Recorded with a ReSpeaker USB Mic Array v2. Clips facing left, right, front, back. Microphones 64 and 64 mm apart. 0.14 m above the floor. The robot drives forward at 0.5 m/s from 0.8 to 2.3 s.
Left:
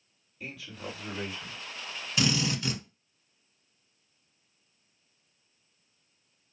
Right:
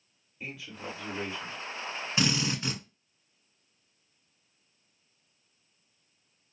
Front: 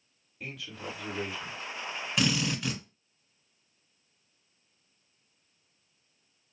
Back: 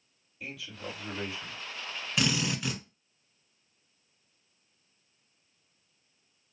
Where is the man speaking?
30° right, 2 m; by 1.6 s 40° right, 1.8 m.